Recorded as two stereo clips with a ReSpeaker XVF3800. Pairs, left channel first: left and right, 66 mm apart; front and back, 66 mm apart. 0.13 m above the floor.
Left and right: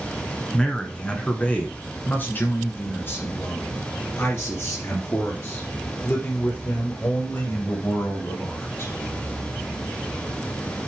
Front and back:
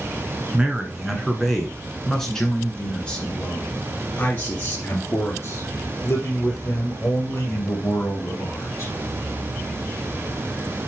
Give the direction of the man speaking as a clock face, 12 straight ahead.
7 o'clock.